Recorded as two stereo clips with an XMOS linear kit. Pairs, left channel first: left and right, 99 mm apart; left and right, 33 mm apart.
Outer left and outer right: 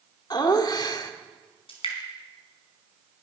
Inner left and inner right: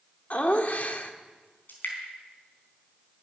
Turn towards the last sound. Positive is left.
turn(degrees=65)  # may be behind; listen again after turning